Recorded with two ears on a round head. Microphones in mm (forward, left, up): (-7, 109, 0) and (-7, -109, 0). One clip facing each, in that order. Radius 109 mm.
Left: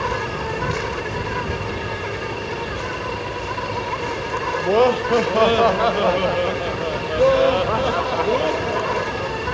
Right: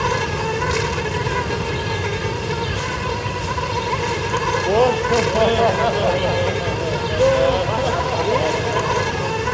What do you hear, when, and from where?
0.0 s an insect: 50° right (ahead or behind)
4.6 s laughter: 5° left (ahead or behind)